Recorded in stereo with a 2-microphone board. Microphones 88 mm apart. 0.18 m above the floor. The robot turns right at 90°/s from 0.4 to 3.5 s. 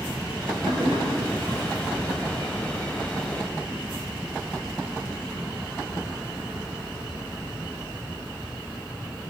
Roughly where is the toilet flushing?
Right.